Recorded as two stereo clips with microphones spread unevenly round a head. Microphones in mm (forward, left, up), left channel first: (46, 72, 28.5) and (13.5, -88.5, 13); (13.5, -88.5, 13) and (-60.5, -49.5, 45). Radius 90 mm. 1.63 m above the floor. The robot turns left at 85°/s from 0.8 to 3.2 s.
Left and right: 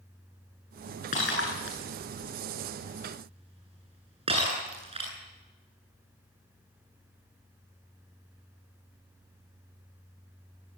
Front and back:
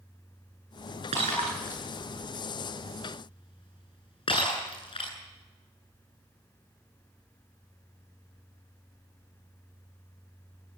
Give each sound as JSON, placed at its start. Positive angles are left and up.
{"t": 1.1, "sound": "breaking glass", "azimuth_deg": 130, "distance_m": 9.5}